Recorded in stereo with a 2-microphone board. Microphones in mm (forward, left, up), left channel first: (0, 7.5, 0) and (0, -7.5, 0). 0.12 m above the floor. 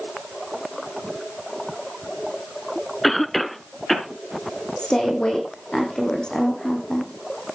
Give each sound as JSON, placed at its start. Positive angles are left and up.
{"t": 3.0, "sound": "a cough", "side_deg": 15, "distance_m": 1.2}
{"t": 4.8, "sound": "a woman speaking", "side_deg": 60, "distance_m": 6.0}